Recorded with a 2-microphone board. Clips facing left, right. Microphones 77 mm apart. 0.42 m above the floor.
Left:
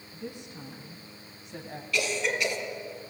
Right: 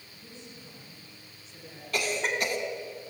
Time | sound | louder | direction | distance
0.1 | a woman speaking | left 8 dB | 75° left (ahead or behind) | 3.5 m
1.9 | a cough | left 1 dB | 45° right (ahead or behind) | 4 m